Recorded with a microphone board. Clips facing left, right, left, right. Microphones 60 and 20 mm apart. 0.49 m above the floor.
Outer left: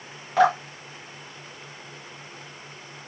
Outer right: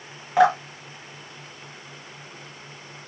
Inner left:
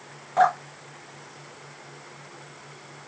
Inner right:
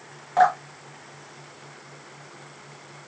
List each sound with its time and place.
0.4 s dripping: 10° right (ahead or behind), 1.5 m